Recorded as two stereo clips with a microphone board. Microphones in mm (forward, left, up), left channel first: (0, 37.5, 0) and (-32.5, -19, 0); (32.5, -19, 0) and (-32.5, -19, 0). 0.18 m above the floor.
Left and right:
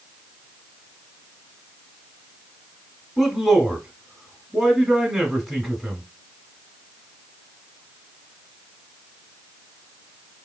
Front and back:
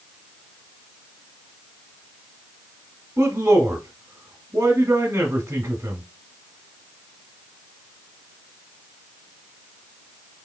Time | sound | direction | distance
3.2 | a man speaking | 150° left | 1.3 m